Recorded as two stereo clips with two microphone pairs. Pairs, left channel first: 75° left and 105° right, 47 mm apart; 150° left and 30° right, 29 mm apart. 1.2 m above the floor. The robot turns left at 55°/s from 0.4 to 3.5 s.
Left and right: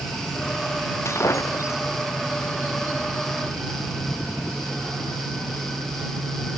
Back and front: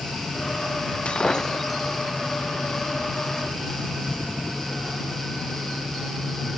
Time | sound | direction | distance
1.1 | breaking glass | 100° left | ?